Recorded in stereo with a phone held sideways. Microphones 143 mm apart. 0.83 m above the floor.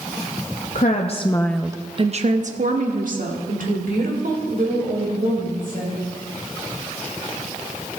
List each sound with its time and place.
0.8 s a woman speaking: 60° left (ahead or behind), 0.8 m; by 6.0 s 80° right, 4 m